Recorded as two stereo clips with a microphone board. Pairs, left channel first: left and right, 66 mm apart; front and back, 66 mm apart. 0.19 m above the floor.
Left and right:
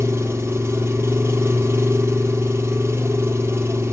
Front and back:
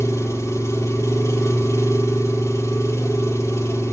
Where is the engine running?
40° right, 3.5 m.